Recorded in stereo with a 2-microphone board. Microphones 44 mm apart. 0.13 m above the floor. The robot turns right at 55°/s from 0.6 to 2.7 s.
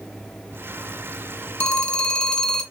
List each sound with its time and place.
1.6 s a phone ringing: 25° left (ahead or behind), 0.6 m; by 2.6 s 15° left (ahead or behind), 0.6 m